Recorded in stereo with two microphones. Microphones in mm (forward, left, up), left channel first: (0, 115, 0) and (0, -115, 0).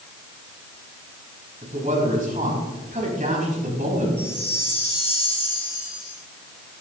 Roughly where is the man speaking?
Right.